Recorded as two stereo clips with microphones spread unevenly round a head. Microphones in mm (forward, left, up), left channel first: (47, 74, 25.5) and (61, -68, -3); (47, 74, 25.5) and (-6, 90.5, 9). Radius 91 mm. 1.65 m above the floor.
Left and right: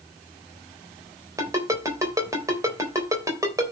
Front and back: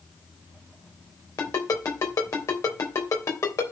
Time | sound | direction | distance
1.4 | a ringtone | 15° right | 3 m